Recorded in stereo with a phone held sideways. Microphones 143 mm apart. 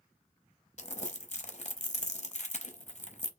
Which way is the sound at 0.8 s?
55° left (ahead or behind).